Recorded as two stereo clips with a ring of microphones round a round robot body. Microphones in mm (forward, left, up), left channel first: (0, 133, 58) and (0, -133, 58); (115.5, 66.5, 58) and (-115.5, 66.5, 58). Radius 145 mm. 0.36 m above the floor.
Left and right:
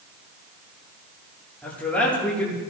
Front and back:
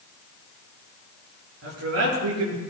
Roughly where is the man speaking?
Behind.